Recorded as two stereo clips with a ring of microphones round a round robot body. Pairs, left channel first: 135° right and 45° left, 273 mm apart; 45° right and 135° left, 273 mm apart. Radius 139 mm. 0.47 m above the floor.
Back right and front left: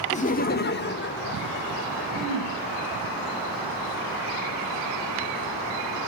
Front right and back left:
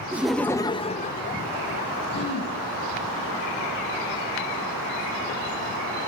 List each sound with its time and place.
0.1 s laughter: 150° right, 0.7 m; by 2.0 s 90° right, 1.5 m
2.1 s throat clearing: 115° right, 6.5 m